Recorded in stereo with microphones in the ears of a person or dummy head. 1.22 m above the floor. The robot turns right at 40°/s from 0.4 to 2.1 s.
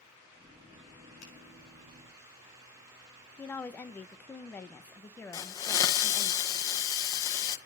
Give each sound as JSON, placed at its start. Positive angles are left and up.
{"t": 1.2, "sound": "a finger snap", "side_deg": 70, "distance_m": 7.5}
{"t": 3.4, "sound": "a woman speaking", "side_deg": 15, "distance_m": 0.9}
{"t": 5.3, "sound": "a hiss", "side_deg": 20, "distance_m": 1.2}